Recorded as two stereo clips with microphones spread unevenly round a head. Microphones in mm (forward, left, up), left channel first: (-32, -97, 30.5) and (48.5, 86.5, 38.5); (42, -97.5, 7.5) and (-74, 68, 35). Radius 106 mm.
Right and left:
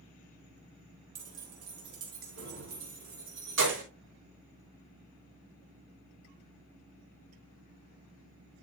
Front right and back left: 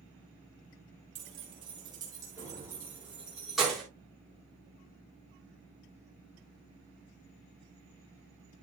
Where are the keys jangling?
65° left, 3.5 m; by 3.8 s 35° left, 4 m.